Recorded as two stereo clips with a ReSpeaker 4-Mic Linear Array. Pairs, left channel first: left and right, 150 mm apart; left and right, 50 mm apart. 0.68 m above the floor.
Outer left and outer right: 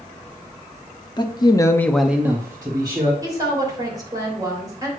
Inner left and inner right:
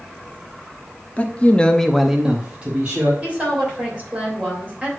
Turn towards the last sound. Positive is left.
turn(degrees=-25)  # may be behind; listen again after turning